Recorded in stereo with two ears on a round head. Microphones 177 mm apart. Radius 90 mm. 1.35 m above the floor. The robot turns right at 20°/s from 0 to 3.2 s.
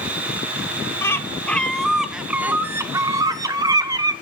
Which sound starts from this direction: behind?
A bird, at 1.0 s.